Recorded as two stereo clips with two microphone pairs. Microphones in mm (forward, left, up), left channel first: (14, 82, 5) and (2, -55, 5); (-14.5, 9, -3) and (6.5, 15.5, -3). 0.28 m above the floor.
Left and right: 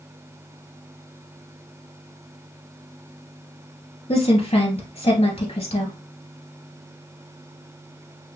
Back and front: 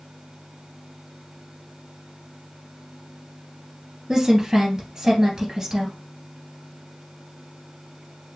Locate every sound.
4.1 s a woman speaking: 85° left, 2 m